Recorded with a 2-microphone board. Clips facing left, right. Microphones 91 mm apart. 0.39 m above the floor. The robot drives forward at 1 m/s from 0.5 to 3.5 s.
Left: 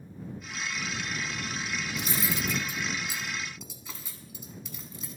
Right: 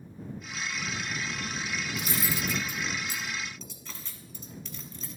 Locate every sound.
1.9 s cutlery clinking: 30° left (ahead or behind), 0.8 m; by 5.2 s 10° left (ahead or behind), 2 m